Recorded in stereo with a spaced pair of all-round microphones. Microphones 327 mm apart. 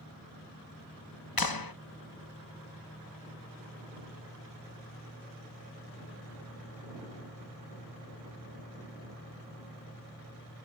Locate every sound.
1.4 s a clap: 80° left